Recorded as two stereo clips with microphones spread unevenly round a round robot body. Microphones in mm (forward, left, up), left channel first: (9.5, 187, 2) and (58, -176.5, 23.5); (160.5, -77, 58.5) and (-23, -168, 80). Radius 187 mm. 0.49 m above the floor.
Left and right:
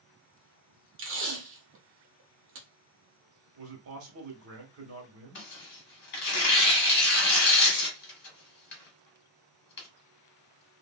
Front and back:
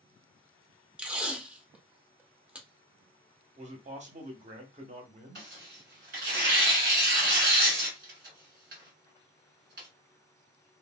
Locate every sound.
1.0 s tape being pulled: 60° right, 0.9 m
3.6 s a man speaking: 110° right, 0.9 m
5.3 s tearing paper: 155° left, 1.1 m